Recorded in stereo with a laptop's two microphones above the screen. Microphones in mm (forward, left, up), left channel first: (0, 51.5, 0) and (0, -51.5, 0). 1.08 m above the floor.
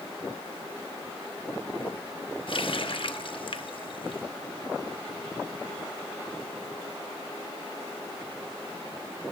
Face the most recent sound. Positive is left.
turn(degrees=55)  # may be behind; listen again after turning